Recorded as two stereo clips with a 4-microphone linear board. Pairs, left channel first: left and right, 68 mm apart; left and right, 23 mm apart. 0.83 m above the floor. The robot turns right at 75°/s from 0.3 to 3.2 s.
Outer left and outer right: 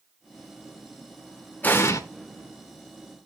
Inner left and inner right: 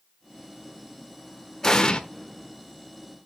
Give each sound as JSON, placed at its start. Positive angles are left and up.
{"t": 1.6, "sound": "an explosion", "side_deg": 25, "distance_m": 1.2}